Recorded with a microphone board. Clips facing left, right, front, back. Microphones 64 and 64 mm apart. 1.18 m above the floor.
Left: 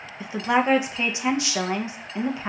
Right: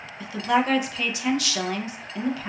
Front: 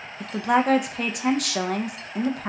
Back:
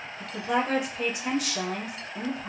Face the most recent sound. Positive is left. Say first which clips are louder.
# left 1 dB, front 6 dB
turn(degrees=25)